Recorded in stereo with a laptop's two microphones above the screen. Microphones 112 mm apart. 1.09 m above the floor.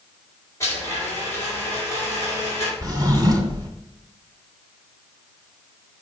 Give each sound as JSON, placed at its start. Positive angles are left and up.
{"t": 0.6, "sound": "a blender", "side_deg": 25, "distance_m": 2.5}
{"t": 2.8, "sound": "a drawer", "side_deg": -35, "distance_m": 1.7}